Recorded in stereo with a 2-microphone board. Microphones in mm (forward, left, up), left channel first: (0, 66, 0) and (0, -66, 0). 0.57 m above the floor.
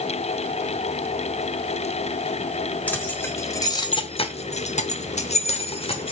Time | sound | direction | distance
2.9 | keys jangling | 15° left (ahead or behind) | 1.4 m